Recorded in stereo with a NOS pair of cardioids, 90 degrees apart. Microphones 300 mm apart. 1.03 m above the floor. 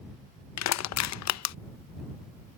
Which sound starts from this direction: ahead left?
Crushing, at 0.6 s.